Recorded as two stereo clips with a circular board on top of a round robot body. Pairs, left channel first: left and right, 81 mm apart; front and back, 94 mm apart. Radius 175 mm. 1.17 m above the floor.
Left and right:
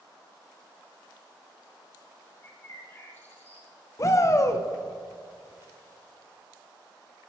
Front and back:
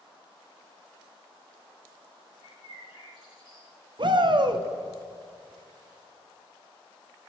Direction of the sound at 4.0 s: 140° left.